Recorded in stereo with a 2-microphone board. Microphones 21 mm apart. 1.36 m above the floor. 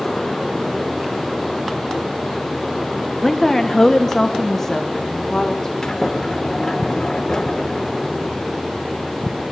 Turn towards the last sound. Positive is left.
turn(degrees=15)  # may be behind; listen again after turning